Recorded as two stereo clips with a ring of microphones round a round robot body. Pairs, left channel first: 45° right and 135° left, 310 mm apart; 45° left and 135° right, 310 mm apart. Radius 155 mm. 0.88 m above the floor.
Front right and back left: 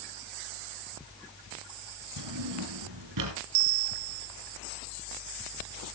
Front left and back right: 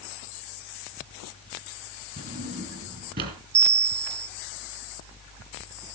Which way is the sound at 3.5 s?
170° left.